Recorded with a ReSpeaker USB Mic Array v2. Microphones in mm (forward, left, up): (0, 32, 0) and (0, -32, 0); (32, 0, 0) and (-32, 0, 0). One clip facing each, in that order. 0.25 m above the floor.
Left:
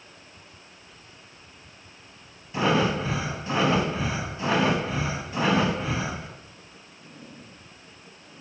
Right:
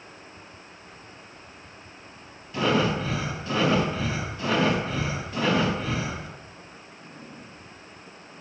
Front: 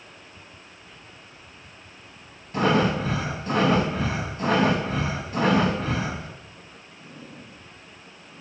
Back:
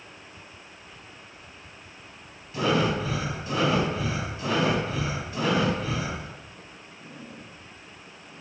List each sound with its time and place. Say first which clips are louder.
2.5 s breathing: even, front 3 dB; 25° left, 0.8 m